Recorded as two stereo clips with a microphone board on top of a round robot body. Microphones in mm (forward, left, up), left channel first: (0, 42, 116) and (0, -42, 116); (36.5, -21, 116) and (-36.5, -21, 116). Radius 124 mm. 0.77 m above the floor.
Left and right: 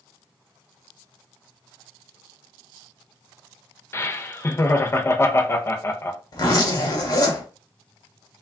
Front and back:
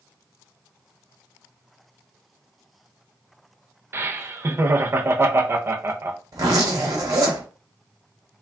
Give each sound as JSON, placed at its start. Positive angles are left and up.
{"t": 3.9, "sound": "laughter", "azimuth_deg": 140, "distance_m": 0.6}
{"t": 6.3, "sound": "a zipper", "azimuth_deg": 135, "distance_m": 1.2}